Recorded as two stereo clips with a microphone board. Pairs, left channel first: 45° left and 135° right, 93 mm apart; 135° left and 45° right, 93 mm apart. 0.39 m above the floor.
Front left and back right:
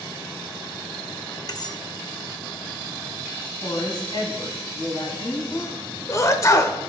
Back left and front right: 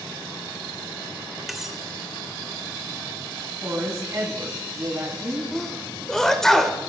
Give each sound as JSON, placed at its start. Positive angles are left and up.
{"t": 1.5, "sound": "cutlery clinking", "azimuth_deg": 40, "distance_m": 0.6}
{"t": 3.6, "sound": "a woman speaking", "azimuth_deg": 10, "distance_m": 3.0}
{"t": 5.5, "sound": "a sneeze", "azimuth_deg": 55, "distance_m": 1.0}